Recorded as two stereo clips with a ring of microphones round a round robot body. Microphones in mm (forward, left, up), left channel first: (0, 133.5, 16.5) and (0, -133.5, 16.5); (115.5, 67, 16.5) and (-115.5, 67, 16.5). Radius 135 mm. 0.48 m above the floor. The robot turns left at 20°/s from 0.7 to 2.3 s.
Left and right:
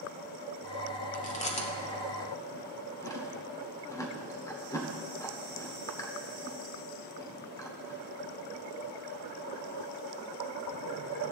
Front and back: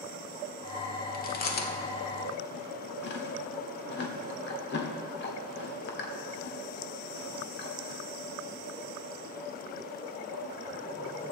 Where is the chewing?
40° left, 1.3 m; by 8.0 s 15° left, 1.3 m.